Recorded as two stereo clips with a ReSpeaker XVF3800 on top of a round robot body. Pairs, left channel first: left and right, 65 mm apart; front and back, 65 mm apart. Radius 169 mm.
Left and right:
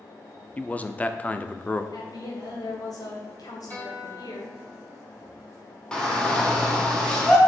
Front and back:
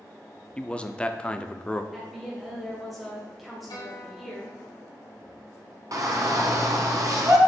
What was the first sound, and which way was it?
A man speaking, 50° left.